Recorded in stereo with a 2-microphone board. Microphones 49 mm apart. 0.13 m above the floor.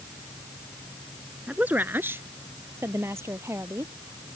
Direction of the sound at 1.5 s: 30° right (ahead or behind).